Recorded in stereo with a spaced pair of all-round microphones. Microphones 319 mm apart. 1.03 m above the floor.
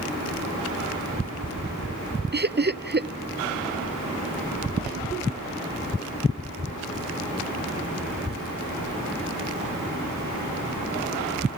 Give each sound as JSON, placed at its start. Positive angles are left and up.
{"t": 2.3, "sound": "laughter", "side_deg": -35, "distance_m": 0.6}